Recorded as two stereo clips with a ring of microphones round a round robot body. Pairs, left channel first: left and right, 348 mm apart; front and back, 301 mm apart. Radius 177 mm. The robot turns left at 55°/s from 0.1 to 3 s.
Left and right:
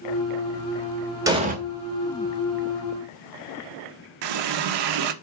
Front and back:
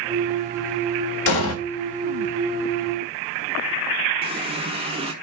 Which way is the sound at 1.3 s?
10° right.